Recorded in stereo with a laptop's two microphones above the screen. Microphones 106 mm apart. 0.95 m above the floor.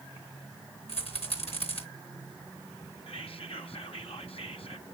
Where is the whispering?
70° left (ahead or behind), 1.4 m.